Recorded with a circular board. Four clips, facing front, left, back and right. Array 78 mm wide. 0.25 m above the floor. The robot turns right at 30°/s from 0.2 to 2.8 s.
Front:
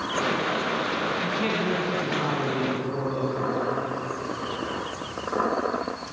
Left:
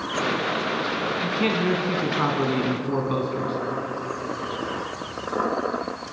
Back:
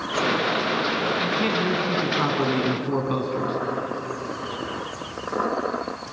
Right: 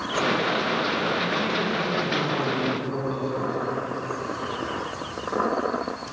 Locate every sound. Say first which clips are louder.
1.2 s a man speaking: left 2 dB, back 3 dB; 95° left, 2.5 m; by 3.6 s 140° left, 2.5 m